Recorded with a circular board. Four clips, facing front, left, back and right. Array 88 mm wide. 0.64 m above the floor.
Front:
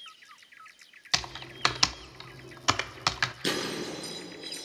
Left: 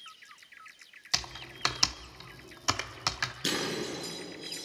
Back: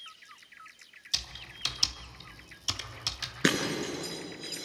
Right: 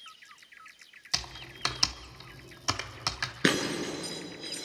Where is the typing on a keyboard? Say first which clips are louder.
Left 1 dB, front 11 dB; 5° left, 0.7 m.